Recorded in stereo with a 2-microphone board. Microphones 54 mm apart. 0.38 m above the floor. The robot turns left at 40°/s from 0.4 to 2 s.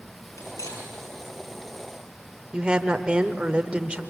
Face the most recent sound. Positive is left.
turn(degrees=-20)  # may be behind; listen again after turning